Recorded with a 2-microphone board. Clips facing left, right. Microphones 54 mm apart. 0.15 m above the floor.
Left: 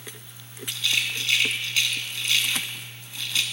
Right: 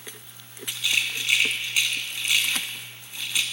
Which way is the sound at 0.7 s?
20° right (ahead or behind).